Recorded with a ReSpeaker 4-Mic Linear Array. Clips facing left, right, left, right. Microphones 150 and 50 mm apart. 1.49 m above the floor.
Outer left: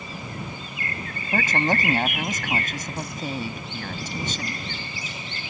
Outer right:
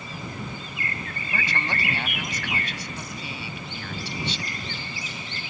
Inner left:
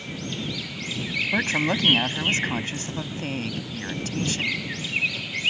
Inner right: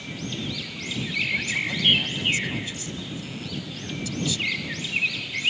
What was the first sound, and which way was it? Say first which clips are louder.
A woman speaking: outer left 8 dB, inner left 3 dB; 50° left (ahead or behind).